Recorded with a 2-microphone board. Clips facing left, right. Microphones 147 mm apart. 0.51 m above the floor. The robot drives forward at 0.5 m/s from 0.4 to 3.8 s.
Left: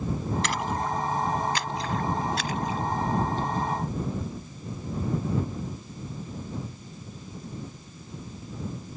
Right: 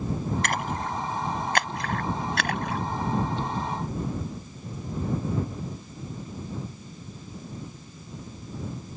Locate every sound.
0.4 s a splash: 50° right (ahead or behind); by 2.8 s 65° right (ahead or behind)